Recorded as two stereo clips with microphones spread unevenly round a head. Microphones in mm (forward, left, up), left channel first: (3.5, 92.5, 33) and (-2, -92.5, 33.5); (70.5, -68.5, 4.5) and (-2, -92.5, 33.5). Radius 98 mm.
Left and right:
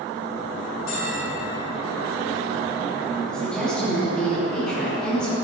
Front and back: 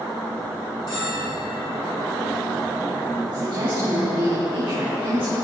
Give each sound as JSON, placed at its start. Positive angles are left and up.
{"t": 0.9, "sound": "a bell", "azimuth_deg": 85, "distance_m": 5.0}
{"t": 3.3, "sound": "a woman speaking", "azimuth_deg": 175, "distance_m": 3.5}